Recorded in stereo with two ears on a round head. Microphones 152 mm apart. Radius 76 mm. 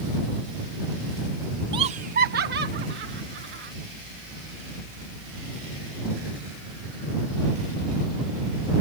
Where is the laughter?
25° right (ahead or behind); by 3.7 s 75° right (ahead or behind).